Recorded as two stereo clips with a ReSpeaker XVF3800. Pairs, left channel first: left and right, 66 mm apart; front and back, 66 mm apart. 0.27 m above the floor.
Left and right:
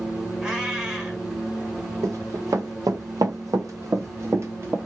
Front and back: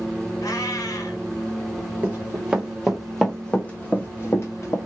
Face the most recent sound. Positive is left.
turn(degrees=-40)